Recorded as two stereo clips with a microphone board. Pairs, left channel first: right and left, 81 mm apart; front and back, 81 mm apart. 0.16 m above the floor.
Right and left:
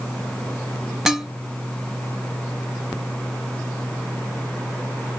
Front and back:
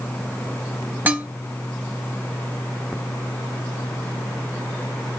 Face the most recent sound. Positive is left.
turn(degrees=165)